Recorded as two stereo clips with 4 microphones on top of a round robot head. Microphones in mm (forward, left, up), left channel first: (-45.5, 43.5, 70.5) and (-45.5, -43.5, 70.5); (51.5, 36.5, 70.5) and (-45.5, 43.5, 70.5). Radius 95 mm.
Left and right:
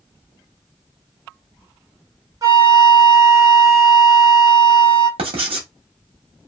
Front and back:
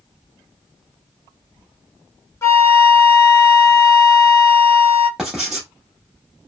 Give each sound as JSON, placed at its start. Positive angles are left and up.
{"t": 2.4, "sound": "a flute", "azimuth_deg": -55, "distance_m": 1.1}
{"t": 5.2, "sound": "writing", "azimuth_deg": -95, "distance_m": 0.9}